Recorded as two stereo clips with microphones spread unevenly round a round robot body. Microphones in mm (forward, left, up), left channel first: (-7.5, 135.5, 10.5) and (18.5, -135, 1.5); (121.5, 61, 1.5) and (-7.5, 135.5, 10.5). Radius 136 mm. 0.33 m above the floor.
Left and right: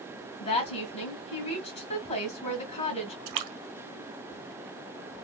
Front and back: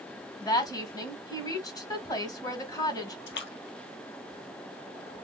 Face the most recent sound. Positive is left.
turn(degrees=-65)